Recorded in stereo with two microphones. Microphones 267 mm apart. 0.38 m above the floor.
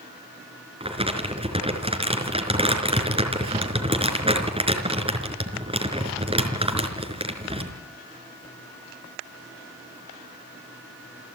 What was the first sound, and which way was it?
Crumpling, 20° right (ahead or behind).